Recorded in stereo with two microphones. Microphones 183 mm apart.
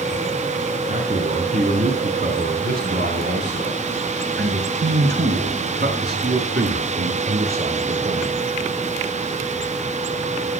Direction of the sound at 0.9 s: 35° right (ahead or behind).